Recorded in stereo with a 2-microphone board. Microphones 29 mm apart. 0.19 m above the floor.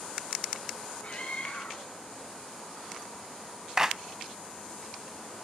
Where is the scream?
55° left (ahead or behind), 4 m.